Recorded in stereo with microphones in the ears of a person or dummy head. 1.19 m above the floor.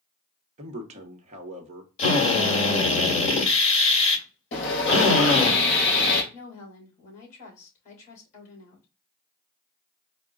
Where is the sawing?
65° left (ahead or behind), 3 m.